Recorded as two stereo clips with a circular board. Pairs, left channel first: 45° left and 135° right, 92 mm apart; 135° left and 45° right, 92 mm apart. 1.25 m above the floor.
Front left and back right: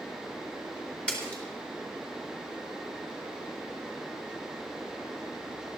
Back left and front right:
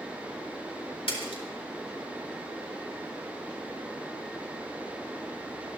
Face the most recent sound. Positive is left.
turn(degrees=125)